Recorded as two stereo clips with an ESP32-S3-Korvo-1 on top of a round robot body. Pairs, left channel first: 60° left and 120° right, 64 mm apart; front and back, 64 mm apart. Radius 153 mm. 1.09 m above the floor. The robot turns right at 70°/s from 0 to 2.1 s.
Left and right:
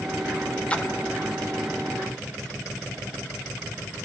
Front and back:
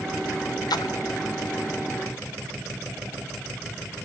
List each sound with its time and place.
0.7 s a splash: 15° right, 0.8 m; by 0.9 s straight ahead, 0.8 m